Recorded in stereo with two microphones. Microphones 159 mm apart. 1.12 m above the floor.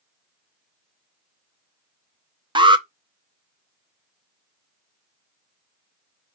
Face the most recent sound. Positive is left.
turn(degrees=-30)  # may be behind; listen again after turning